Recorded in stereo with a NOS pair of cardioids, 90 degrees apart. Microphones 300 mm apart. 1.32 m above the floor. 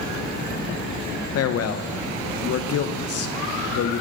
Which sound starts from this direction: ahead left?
A man speaking, at 1.4 s.